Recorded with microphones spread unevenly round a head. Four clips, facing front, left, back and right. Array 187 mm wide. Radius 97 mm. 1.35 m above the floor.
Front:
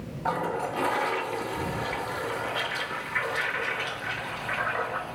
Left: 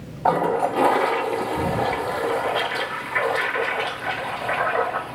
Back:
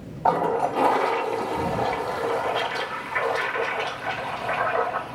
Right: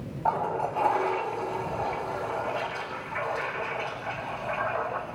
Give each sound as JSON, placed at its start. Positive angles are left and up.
{"t": 0.2, "sound": "a toilet flushing", "azimuth_deg": 105, "distance_m": 1.4}